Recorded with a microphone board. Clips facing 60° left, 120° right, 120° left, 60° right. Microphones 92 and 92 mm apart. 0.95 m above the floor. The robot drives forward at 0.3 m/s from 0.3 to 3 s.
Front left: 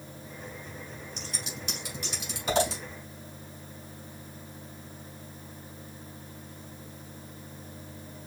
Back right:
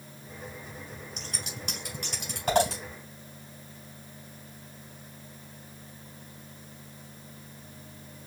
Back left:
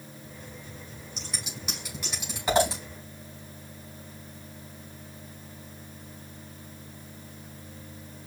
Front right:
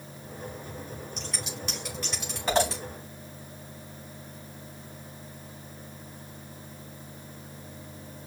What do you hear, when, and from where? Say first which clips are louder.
1.2 s scissors: front left 1 dB, front right 3 dB; 150° right, 3 m; by 2.8 s 155° right, 3.5 m